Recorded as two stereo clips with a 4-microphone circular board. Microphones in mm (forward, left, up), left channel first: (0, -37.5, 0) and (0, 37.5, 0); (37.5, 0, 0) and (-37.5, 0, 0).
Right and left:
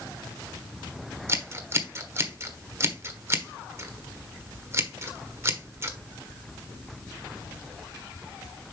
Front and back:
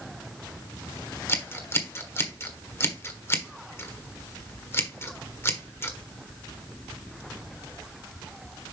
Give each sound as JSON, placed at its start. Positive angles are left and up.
{"t": 1.3, "sound": "scissors", "azimuth_deg": 50, "distance_m": 1.3}